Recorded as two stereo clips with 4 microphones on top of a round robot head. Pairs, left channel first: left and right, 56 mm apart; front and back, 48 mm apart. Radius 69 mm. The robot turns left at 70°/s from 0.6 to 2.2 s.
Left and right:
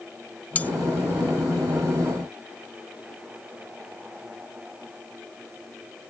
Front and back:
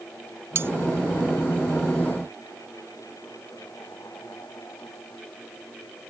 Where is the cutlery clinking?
150° left; by 0.7 s 145° left.